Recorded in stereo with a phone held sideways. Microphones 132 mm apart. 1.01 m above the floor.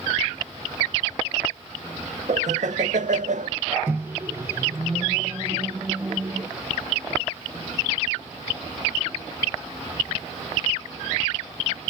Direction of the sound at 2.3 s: 70° right (ahead or behind).